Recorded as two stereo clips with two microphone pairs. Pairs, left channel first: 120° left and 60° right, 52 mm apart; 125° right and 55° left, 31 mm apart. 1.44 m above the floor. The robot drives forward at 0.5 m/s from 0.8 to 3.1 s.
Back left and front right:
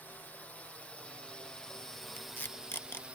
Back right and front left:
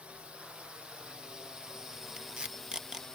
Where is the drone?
80° left; by 3.2 s 80° right.